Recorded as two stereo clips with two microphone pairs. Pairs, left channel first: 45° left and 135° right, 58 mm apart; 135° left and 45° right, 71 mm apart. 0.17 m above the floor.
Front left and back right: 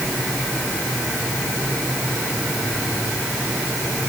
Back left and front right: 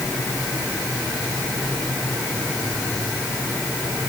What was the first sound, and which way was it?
Only background noise.